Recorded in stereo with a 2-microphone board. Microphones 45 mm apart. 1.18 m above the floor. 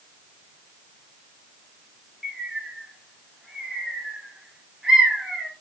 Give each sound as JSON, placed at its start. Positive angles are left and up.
{"t": 2.2, "sound": "a bird", "side_deg": -5, "distance_m": 1.8}